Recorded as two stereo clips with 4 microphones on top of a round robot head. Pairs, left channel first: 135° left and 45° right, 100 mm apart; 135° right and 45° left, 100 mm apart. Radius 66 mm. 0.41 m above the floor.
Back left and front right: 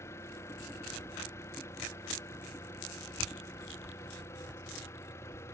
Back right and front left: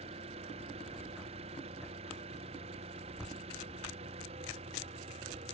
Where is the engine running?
70° left.